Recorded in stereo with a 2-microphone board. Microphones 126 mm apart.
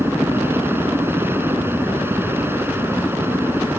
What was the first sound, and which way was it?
A helicopter, 15° right (ahead or behind).